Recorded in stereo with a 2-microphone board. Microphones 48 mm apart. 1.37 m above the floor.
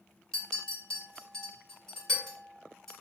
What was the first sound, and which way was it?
A clink, 15° left (ahead or behind).